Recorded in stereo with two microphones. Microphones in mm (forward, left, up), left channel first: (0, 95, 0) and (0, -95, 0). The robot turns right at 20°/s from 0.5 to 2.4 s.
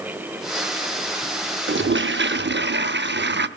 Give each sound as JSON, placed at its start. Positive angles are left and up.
{"t": 1.7, "sound": "a toilet flushing", "side_deg": -80, "distance_m": 0.7}